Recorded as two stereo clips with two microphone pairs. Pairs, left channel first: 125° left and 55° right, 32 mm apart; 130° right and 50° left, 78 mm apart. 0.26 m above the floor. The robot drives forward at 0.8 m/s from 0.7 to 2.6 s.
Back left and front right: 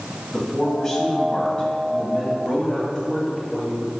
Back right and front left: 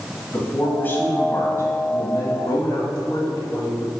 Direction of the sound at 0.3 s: 175° right.